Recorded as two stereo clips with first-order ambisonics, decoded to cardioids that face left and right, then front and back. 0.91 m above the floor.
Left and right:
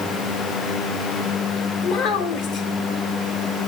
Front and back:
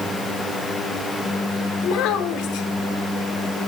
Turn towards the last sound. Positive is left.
turn(degrees=45)